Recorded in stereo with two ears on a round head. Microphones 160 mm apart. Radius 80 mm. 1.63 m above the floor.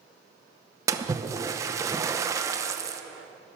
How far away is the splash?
About 0.8 m.